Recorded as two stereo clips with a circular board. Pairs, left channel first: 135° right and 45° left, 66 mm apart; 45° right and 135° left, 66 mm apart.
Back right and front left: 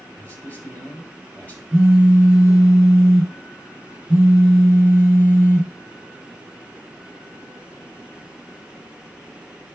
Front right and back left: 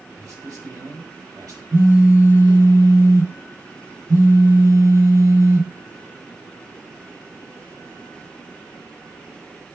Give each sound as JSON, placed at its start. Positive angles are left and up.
{"t": 0.2, "sound": "a man speaking", "azimuth_deg": 160, "distance_m": 5.0}
{"t": 1.7, "sound": "a phone buzzing", "azimuth_deg": 120, "distance_m": 5.5}